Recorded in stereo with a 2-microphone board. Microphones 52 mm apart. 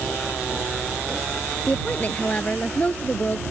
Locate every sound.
1.7 s a woman speaking: 25° left (ahead or behind)